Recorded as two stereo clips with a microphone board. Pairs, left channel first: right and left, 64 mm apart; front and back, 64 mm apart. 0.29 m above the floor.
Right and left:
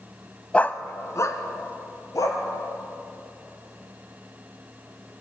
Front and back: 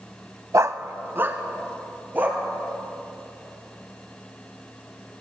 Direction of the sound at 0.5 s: 160° right.